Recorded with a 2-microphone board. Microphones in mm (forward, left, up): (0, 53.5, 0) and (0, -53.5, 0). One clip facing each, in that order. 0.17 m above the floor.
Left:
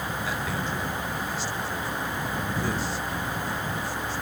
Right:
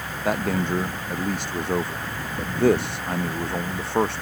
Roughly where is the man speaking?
Right.